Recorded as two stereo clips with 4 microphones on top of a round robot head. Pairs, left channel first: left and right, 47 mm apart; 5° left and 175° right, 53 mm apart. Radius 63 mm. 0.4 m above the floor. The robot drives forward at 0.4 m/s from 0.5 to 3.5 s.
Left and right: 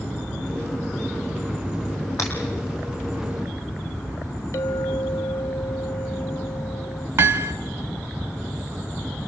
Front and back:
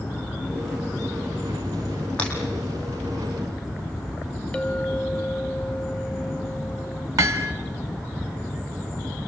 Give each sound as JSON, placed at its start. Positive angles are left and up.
{"t": 2.2, "sound": "breaking glass", "azimuth_deg": 75, "distance_m": 8.0}
{"t": 4.5, "sound": "a clink", "azimuth_deg": 80, "distance_m": 0.9}
{"t": 7.2, "sound": "hammering", "azimuth_deg": -140, "distance_m": 1.2}